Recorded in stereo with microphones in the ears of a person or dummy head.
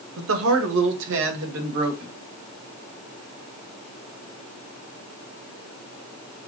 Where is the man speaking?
65° right (ahead or behind), 0.8 m; by 2.1 s 70° right (ahead or behind), 3 m.